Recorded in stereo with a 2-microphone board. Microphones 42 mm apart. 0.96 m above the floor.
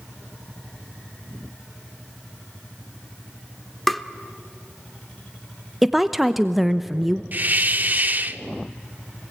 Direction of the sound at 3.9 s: 5° left (ahead or behind).